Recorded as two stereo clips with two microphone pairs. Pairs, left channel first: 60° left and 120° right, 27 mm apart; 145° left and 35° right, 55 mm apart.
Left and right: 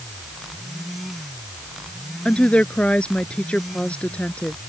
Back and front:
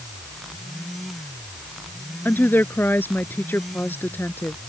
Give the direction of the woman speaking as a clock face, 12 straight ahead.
9 o'clock.